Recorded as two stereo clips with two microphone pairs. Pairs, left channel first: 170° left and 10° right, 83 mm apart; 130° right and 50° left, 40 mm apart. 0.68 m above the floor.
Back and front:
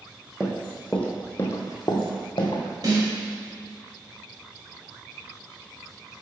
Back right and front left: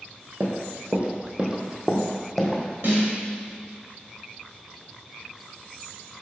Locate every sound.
0.4 s running footsteps: 65° left, 1.4 m; by 2.6 s 150° left, 1.9 m
2.8 s a snare drum: 25° left, 2.5 m